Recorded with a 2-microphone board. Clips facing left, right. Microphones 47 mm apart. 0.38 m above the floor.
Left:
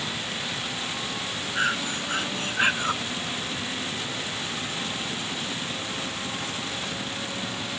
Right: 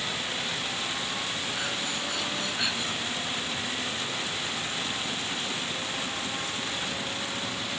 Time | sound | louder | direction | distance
1.6 | breathing | left 5 dB | 45° left (ahead or behind) | ?